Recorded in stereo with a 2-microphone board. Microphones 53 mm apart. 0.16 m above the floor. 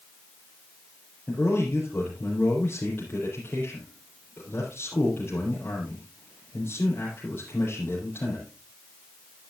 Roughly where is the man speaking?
Left.